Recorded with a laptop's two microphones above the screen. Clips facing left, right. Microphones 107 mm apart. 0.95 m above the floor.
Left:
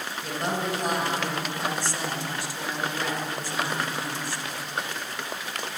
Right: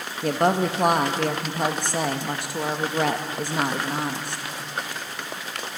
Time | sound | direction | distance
0.2 | a woman speaking | 60° right (ahead or behind) | 1.0 m